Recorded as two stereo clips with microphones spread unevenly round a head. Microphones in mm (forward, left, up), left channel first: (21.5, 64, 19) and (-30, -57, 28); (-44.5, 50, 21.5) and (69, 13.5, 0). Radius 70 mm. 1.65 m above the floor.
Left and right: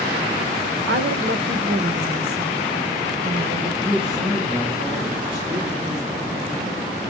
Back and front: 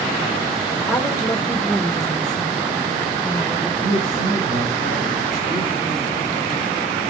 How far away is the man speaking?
About 8 m.